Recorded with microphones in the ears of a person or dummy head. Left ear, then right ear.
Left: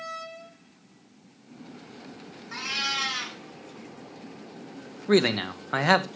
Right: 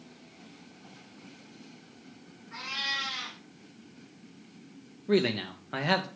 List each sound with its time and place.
2.5 s a cat meowing: 70° left (ahead or behind), 3 m
5.1 s a man speaking: 35° left (ahead or behind), 0.6 m